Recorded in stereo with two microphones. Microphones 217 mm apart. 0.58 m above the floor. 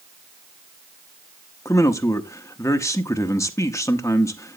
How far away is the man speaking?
About 0.8 m.